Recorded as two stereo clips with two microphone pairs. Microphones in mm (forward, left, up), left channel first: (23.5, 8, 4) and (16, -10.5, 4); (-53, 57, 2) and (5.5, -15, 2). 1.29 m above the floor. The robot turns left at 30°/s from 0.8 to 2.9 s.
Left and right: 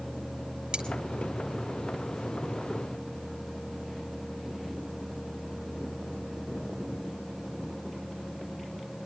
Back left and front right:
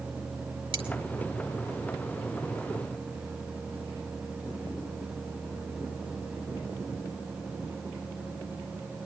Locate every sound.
0.7 s cutlery clinking: 75° right, 3 m